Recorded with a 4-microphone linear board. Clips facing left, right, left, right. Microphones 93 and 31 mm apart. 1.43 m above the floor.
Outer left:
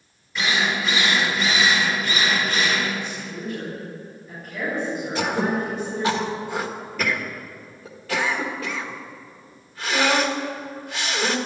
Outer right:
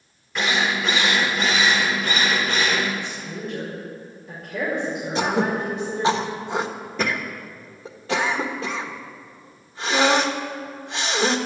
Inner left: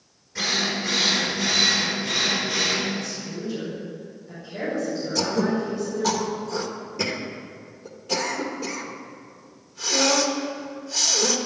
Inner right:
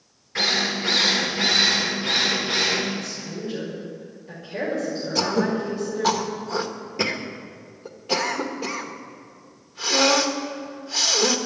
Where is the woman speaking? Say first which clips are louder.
Even, even; 70° right (ahead or behind), 6 m.